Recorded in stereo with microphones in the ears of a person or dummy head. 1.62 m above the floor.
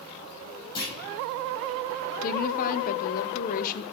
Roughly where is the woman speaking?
Left.